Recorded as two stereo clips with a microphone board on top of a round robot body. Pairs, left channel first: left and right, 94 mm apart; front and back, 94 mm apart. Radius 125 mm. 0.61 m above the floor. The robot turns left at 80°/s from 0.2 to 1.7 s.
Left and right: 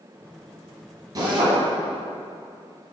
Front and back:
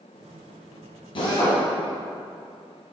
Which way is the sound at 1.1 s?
35° right.